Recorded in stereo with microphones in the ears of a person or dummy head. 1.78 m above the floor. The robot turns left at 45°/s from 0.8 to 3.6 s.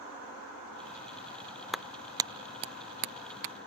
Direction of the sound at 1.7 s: Centre (ahead or behind).